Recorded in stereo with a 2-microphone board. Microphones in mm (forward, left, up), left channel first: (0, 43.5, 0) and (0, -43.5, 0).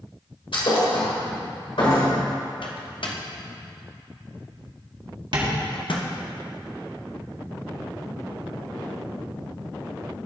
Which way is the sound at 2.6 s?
70° left (ahead or behind).